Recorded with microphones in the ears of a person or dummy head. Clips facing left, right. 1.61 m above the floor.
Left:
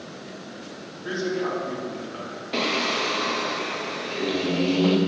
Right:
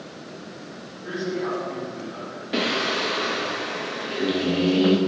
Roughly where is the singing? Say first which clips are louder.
Right 1 dB; centre.